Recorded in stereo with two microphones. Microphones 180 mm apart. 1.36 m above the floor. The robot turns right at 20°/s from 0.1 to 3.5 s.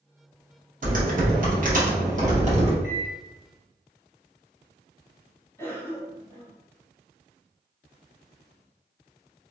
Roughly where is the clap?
I don't hear a clap.